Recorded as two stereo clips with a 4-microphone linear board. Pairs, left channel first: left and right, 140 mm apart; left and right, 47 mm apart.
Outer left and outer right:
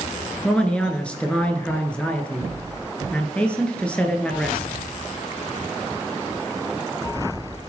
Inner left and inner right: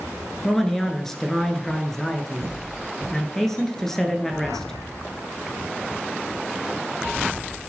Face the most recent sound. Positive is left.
turn(degrees=10)  # may be behind; listen again after turning